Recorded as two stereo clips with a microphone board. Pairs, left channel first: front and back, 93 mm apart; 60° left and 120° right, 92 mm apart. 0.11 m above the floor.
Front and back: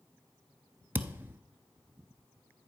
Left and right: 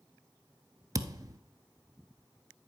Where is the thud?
125° right, 0.5 m.